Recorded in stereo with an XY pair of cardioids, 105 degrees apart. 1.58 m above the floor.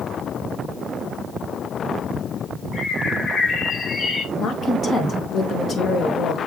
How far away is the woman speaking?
About 2.5 m.